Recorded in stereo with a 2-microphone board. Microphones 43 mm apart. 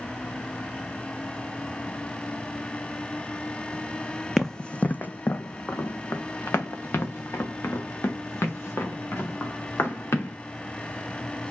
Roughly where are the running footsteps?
Centre.